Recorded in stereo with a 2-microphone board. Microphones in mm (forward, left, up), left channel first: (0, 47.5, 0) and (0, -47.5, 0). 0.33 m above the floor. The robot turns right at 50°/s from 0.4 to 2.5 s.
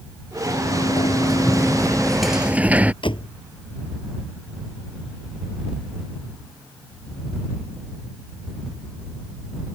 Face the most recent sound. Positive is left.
turn(degrees=65)  # may be behind; listen again after turning